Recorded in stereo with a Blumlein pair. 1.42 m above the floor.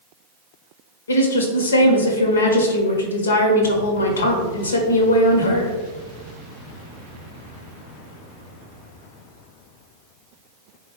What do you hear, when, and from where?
1.1 s a woman speaking: 70° left, 0.7 m